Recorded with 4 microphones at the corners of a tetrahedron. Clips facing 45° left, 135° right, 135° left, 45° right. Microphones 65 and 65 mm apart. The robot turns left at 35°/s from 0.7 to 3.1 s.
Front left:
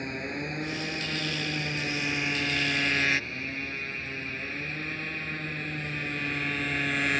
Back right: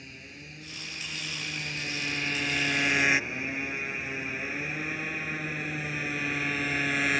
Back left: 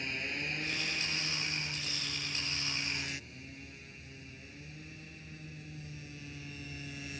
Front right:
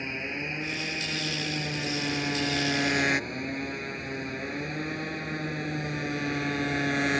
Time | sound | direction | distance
0.0 | a motorcycle | 15° left | ?